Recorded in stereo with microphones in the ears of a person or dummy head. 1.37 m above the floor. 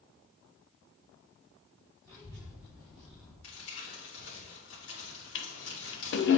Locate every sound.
2.0 s a child speaking: 10° right (ahead or behind), 3 m; by 3.3 s centre (ahead or behind), 1.4 m
3.4 s crumpling: 85° left, 2.5 m
5.3 s a toilet flushing: 60° left (ahead or behind), 0.7 m